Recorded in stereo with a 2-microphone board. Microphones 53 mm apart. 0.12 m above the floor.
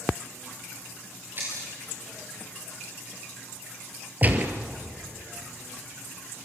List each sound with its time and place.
1.4 s breaking glass: 40° right (ahead or behind), 7.5 m
4.2 s a gunshot: 30° right (ahead or behind), 2 m